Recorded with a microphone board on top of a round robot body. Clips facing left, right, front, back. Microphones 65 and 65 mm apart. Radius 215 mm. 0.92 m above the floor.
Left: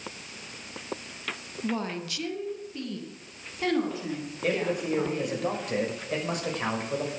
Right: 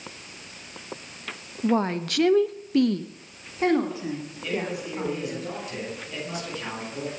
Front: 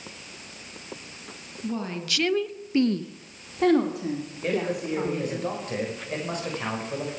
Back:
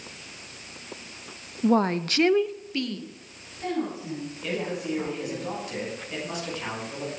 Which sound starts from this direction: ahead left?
A man speaking, at 4.4 s.